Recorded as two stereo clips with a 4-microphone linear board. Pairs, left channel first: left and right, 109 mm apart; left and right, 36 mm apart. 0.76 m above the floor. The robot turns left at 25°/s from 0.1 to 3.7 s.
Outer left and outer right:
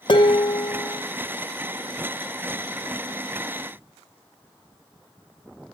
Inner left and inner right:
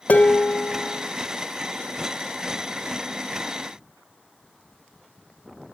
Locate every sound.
0.1 s dishes clattering: 45° left (ahead or behind), 0.6 m; by 1.0 s 20° left (ahead or behind), 0.6 m